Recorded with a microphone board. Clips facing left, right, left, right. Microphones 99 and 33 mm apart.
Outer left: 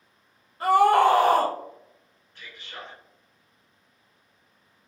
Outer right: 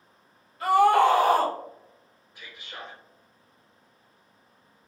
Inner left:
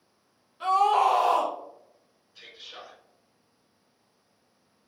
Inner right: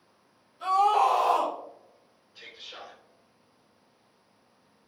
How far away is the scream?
About 0.9 m.